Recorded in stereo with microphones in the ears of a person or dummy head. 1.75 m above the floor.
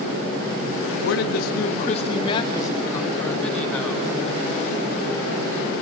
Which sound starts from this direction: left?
A man speaking, at 1.0 s.